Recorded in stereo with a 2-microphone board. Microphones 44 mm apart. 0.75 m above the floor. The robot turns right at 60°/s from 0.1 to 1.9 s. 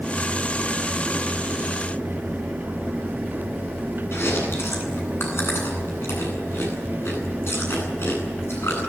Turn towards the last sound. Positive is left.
turn(degrees=70)  # may be behind; listen again after turning